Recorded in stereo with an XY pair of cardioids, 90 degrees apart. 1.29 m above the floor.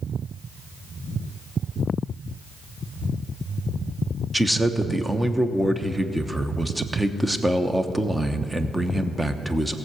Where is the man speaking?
10° right, 1.0 m.